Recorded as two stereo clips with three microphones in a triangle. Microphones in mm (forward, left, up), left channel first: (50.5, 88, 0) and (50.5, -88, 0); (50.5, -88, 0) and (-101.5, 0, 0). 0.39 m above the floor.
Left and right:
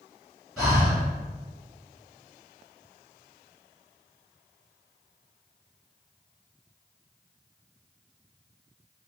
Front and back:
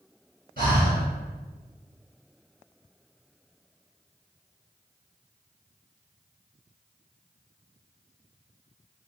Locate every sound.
0.6 s breathing: straight behind, 2.0 m